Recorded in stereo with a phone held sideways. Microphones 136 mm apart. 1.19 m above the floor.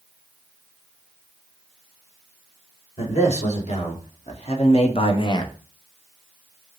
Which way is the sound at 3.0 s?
50° left (ahead or behind).